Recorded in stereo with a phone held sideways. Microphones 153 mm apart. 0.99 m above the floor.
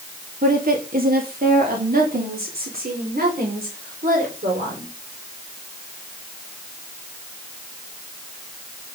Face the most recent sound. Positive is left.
turn(degrees=-80)